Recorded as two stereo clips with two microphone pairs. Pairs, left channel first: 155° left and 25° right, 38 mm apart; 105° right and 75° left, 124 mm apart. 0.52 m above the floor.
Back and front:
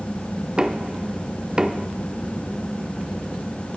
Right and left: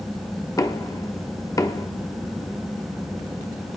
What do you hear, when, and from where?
0.6 s knocking: 70° right, 0.8 m